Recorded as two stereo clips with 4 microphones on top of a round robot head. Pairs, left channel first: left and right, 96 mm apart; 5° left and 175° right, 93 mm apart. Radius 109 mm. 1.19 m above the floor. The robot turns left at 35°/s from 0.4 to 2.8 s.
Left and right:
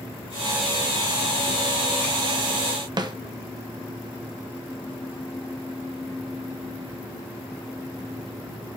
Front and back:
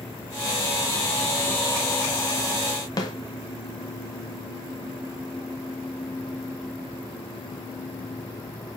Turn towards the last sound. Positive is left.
turn(degrees=-45)